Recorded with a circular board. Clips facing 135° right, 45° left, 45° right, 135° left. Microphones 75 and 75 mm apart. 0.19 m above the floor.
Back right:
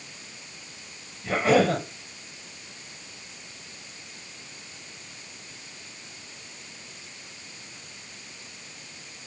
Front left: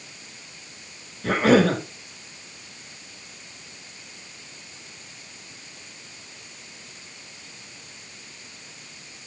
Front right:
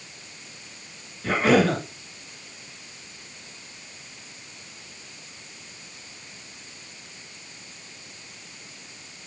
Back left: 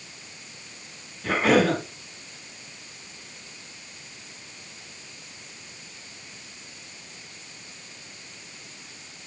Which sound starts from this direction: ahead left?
A cough, at 1.2 s.